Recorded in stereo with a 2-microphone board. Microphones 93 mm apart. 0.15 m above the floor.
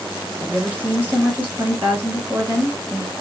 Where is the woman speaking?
20° right (ahead or behind), 1.3 m.